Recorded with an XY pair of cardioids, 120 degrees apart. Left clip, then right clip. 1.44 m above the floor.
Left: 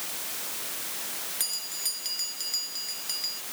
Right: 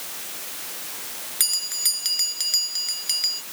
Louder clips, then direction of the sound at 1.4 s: Right 10 dB; 45° right.